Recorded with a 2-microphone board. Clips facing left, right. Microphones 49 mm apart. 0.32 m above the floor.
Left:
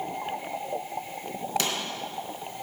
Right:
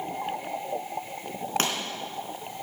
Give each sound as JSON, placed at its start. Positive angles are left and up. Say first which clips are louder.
{"t": 1.6, "sound": "a pop", "louder": "right 4 dB", "side_deg": -40, "distance_m": 3.5}